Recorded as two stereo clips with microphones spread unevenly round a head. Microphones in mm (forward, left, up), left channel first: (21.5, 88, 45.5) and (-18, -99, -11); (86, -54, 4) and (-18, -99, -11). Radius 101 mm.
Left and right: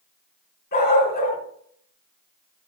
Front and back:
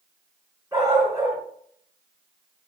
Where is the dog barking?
125° left, 4 m.